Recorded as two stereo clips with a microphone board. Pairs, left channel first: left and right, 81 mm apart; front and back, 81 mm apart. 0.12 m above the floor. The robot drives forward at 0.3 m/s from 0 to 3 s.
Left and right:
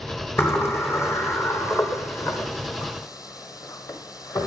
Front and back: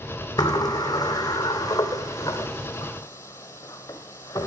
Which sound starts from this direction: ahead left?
A sliding door, at 0.4 s.